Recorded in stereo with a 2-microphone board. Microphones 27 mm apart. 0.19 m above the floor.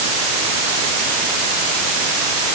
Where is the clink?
I don't hear a clink.